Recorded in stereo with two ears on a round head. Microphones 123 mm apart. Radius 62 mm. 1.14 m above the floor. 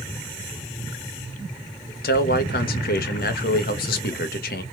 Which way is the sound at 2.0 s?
70° left (ahead or behind).